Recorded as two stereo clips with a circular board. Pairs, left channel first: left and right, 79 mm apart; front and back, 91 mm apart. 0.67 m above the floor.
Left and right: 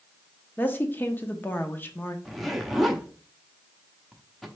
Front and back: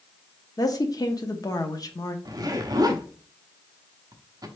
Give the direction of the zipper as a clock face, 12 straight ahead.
6 o'clock.